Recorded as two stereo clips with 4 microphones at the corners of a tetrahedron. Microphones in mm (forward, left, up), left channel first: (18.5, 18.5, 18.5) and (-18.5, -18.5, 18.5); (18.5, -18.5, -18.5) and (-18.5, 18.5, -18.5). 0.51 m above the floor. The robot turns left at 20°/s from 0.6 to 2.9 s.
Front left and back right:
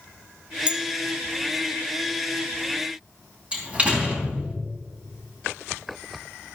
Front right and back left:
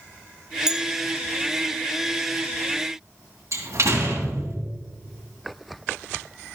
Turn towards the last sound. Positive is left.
turn(degrees=155)